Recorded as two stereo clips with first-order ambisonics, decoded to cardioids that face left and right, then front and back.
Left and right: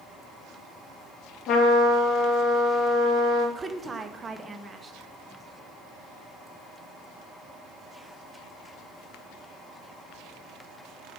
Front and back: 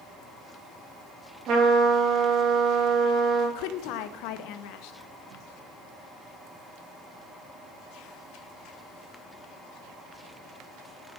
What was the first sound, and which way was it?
A trumpet, 135° left.